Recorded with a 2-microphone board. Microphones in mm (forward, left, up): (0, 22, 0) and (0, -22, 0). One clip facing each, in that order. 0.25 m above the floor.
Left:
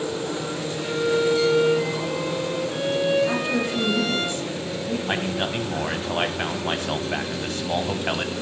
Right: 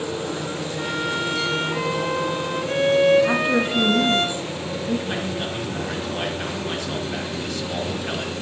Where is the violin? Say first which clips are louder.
Left 4 dB; 60° right (ahead or behind), 1.0 m.